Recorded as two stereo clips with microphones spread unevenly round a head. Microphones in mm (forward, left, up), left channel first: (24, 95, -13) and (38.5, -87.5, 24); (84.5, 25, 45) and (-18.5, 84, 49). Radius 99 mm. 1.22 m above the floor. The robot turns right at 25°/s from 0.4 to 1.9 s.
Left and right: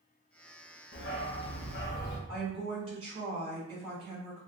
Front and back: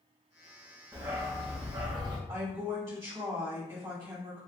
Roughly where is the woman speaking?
Behind right.